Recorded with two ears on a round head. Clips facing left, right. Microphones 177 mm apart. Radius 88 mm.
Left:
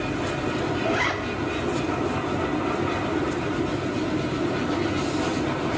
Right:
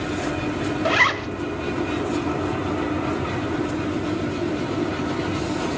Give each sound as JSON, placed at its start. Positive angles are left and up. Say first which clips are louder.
{"t": 0.8, "sound": "a zipper", "louder": "right 1 dB", "side_deg": -75, "distance_m": 0.6}